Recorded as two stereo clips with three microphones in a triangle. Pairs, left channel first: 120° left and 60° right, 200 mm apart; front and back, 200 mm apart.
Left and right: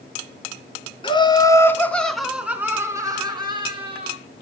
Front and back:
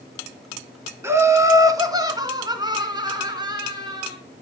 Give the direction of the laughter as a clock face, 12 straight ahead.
8 o'clock.